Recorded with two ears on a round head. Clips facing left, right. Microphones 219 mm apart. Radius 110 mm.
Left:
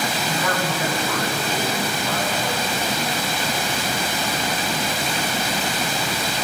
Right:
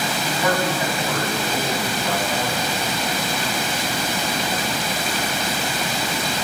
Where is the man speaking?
55° right (ahead or behind), 8 m.